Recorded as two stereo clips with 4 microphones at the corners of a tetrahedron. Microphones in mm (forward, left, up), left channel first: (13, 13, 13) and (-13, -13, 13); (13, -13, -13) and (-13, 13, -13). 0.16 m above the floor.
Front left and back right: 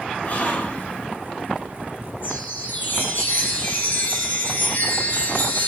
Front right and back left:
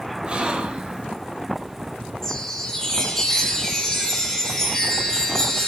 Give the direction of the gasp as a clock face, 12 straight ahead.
9 o'clock.